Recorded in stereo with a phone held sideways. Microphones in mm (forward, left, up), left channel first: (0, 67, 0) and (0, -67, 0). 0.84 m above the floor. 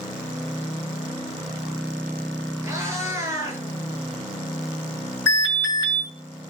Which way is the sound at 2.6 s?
20° right (ahead or behind).